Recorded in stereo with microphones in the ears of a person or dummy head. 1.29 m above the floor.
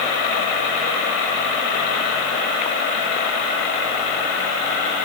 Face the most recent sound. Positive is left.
No sound to turn to.